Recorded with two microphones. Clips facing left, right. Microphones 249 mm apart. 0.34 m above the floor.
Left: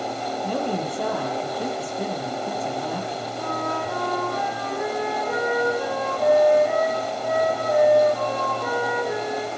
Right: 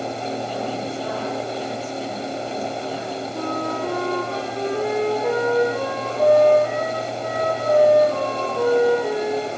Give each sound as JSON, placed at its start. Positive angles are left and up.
{"t": 0.4, "sound": "a woman speaking", "side_deg": 55, "distance_m": 7.0}
{"t": 3.3, "sound": "a flute", "side_deg": -80, "distance_m": 6.5}